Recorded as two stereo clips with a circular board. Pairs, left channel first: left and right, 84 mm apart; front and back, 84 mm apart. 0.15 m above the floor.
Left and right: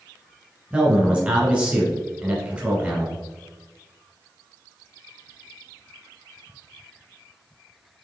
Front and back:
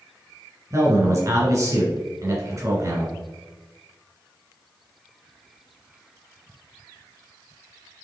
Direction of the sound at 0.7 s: 160° right.